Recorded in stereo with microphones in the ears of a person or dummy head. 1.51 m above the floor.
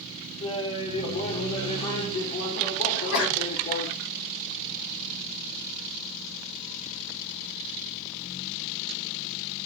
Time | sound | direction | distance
0.4 | laughter | 35° left (ahead or behind) | 0.8 m
2.9 | a sneeze | 60° left (ahead or behind) | 0.9 m